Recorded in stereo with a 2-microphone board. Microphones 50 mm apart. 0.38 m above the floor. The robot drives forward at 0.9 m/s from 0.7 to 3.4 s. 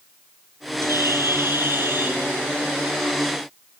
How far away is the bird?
About 2.5 m.